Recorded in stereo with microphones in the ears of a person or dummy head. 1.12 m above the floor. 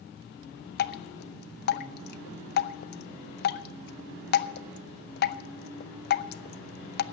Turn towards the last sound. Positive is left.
turn(degrees=55)  # may be behind; listen again after turning